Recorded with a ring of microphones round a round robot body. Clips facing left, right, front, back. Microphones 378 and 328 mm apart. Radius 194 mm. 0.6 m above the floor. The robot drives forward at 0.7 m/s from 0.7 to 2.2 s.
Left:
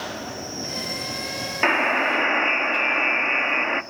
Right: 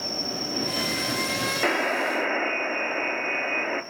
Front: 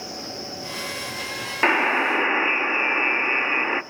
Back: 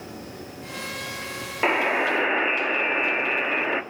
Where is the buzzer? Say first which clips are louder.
Left 2 dB, even; 45° left, 1.5 m; by 3.8 s 65° left, 1.3 m.